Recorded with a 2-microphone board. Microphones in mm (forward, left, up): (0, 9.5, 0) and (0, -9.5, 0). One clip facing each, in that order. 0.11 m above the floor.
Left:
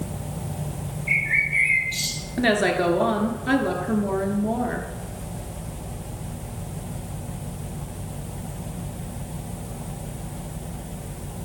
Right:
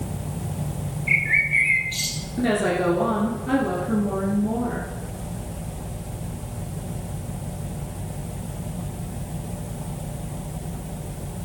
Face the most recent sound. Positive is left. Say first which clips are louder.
# left 1 dB
turn(degrees=40)  # may be behind; listen again after turning